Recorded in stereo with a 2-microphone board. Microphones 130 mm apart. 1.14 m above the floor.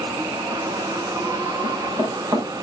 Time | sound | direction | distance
1.6 | running footsteps | 30° right (ahead or behind) | 7 m